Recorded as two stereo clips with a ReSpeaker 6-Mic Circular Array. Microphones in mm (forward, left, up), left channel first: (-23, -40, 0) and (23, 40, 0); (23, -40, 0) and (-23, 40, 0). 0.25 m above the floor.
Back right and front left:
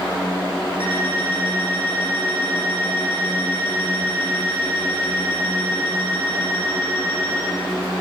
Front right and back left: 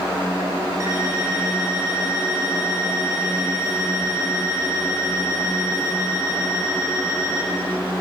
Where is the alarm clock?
70° left, 7 m.